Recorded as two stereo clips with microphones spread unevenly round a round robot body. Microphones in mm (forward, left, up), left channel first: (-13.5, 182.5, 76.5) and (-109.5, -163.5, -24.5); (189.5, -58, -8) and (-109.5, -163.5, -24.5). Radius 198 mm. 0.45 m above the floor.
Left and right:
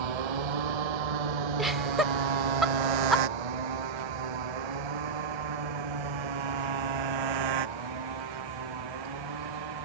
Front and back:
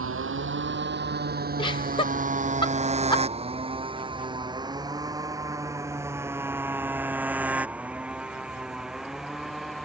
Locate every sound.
0.0 s a motorcycle: 110° right; by 9.9 s 70° right
1.6 s laughter: 50° right